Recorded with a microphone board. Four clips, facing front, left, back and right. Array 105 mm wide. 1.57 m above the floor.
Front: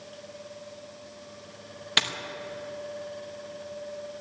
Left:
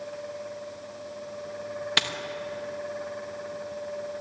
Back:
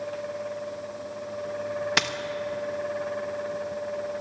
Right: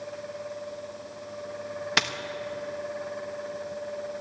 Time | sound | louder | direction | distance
2.0 | a dropped coin | right 3 dB, front 2 dB | 135° right | 0.8 m